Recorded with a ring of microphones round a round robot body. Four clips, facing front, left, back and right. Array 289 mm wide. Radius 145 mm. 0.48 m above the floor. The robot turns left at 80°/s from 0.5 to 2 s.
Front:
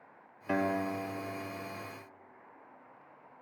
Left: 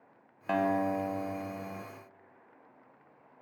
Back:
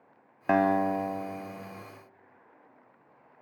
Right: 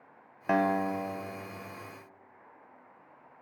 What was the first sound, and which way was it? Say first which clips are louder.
A guitar: right 1 dB, back 7 dB; 165° right.